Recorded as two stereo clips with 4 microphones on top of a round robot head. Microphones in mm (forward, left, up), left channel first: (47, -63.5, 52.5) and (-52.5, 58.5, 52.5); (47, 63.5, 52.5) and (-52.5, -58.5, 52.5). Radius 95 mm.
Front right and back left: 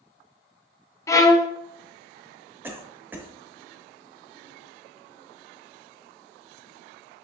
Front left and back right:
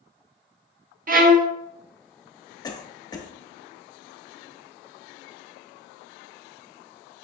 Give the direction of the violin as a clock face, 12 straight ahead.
4 o'clock.